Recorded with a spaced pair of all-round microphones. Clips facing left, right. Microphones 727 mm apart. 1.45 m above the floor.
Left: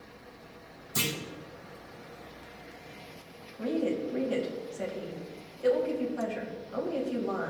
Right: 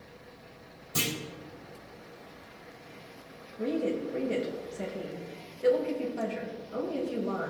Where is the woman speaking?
50° right (ahead or behind), 3 m.